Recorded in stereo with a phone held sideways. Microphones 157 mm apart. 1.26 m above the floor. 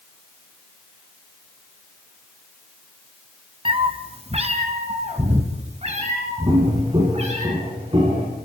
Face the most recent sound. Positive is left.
turn(degrees=-40)  # may be behind; listen again after turning